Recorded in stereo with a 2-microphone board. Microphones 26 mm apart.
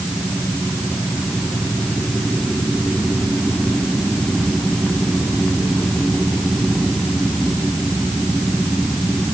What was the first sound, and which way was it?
Only background noise.